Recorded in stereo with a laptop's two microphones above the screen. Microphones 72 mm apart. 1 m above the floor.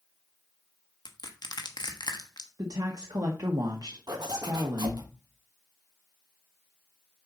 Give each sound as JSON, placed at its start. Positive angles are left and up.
{"t": 1.1, "sound": "crushing", "side_deg": 70, "distance_m": 1.1}
{"t": 2.6, "sound": "a woman speaking", "side_deg": -60, "distance_m": 1.1}
{"t": 4.1, "sound": "a zipper", "side_deg": -70, "distance_m": 1.3}